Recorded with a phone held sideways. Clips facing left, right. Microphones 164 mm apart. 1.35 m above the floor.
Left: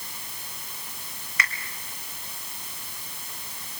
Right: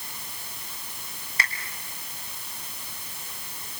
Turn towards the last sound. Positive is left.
turn(degrees=-30)  # may be behind; listen again after turning